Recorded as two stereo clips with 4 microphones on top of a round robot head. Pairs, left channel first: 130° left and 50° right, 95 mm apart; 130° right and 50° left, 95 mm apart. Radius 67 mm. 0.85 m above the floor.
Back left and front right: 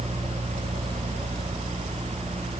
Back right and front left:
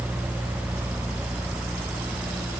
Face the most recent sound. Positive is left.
No sound to turn to.